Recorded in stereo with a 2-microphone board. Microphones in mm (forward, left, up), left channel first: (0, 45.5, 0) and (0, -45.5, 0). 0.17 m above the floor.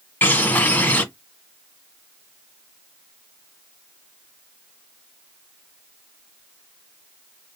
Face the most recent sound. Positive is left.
turn(degrees=20)  # may be behind; listen again after turning